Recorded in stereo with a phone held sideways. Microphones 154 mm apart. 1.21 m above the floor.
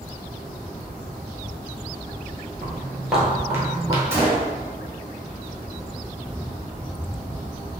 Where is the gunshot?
15° right (ahead or behind), 1.0 m.